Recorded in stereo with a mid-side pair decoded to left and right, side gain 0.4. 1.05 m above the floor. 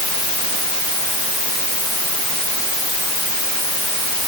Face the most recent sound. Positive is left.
No sound to turn to.